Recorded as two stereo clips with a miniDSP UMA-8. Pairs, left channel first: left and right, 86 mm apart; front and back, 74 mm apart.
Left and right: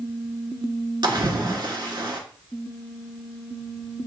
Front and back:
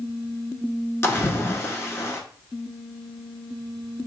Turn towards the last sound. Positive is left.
turn(degrees=-55)